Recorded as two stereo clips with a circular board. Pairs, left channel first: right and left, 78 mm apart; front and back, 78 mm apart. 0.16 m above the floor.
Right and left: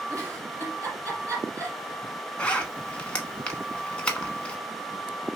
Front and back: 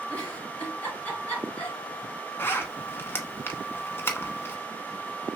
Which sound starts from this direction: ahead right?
A zipper, at 2.4 s.